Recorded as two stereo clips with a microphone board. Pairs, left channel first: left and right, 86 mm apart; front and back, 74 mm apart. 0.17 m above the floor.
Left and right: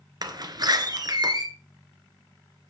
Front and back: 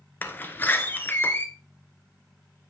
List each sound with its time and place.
0.2 s a door slam: 60° right, 1.4 m